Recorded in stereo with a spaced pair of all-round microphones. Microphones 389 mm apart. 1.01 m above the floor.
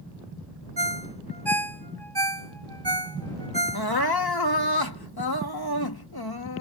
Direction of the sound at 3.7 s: 70° left (ahead or behind).